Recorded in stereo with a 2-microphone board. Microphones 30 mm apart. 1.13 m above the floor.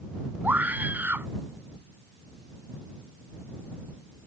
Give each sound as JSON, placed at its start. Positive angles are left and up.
{"t": 0.4, "sound": "a scream", "side_deg": -75}